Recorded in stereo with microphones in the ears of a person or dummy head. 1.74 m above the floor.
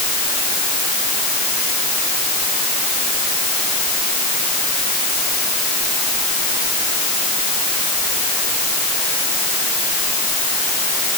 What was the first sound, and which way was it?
Only background noise.